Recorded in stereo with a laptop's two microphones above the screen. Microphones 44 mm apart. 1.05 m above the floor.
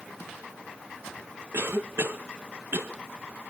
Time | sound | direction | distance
1.5 | a cough | 65° right (ahead or behind) | 1.0 m